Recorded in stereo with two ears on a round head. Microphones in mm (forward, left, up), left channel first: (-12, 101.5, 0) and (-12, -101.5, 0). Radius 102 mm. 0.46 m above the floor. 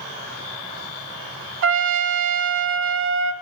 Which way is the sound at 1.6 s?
60° right (ahead or behind).